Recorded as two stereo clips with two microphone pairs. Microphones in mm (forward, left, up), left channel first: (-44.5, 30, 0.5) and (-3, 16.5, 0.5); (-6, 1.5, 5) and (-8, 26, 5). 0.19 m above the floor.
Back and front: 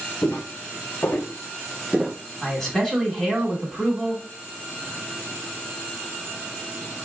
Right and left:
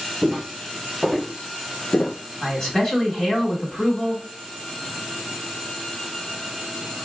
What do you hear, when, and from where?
0.2 s footsteps: 170° left, 1.3 m; by 2.2 s 85° right, 0.5 m
2.4 s a man speaking: 120° right, 1.8 m